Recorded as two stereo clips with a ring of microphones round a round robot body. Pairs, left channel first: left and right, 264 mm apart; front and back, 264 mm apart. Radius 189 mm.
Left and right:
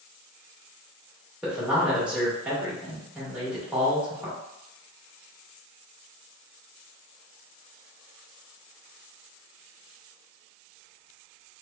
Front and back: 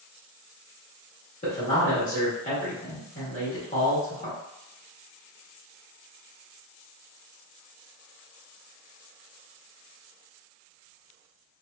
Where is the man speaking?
10° right, 1.3 m.